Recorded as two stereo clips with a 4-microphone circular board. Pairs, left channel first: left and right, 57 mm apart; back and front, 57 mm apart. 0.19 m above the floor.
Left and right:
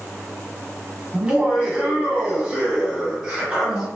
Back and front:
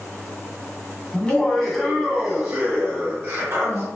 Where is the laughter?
140° right, 1.1 m; by 3.9 s 25° right, 1.5 m.